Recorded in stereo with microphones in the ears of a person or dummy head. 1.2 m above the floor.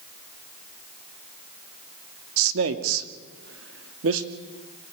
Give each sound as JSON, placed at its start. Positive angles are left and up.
{"t": 2.4, "sound": "a man speaking", "side_deg": -85, "distance_m": 1.9}